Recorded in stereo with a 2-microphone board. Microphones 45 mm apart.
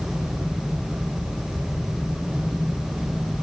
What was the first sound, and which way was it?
Only background noise.